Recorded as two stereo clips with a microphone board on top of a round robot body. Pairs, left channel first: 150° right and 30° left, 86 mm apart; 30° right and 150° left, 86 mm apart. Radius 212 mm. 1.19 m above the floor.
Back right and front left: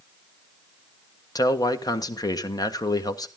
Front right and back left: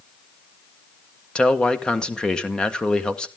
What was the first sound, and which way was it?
A man speaking, 110° right.